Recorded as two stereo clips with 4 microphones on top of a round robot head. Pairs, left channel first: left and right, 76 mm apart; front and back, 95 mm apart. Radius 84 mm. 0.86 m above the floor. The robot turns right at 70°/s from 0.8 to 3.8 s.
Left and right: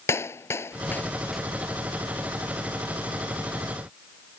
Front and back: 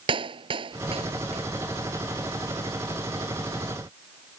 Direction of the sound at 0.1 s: 145° left.